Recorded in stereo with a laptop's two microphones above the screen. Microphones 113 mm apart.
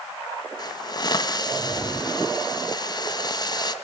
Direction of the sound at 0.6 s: 35° left (ahead or behind).